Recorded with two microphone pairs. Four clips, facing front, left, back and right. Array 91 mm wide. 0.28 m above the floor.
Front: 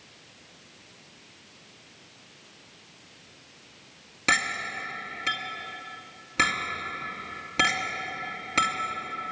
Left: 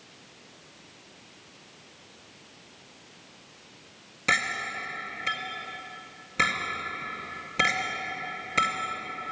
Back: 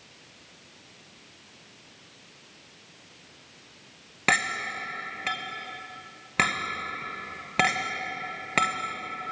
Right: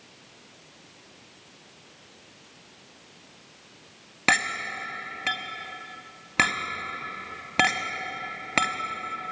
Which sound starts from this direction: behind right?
A clink, at 4.3 s.